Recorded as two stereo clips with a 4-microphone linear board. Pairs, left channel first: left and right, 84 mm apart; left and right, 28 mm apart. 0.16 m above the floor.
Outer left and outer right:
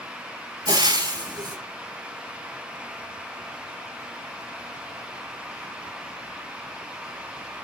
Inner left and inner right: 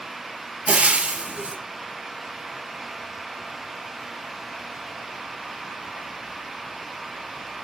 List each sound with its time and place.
0.7 s frying: 60° right (ahead or behind), 2.5 m